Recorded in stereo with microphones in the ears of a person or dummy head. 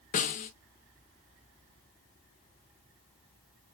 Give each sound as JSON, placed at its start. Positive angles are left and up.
{"t": 0.1, "sound": "a snare drum", "side_deg": 45, "distance_m": 0.9}